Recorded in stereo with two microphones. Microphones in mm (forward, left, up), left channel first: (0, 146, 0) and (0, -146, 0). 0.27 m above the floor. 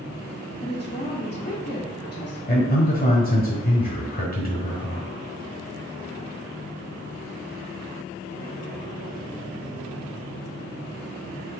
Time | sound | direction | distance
0.6 | a woman speaking | 35° left (ahead or behind) | 2.0 m
2.5 | a man speaking | 30° left (ahead or behind) | 1.1 m